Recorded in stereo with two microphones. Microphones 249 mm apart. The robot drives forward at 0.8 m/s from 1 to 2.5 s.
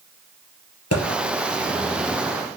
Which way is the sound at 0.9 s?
75° left (ahead or behind).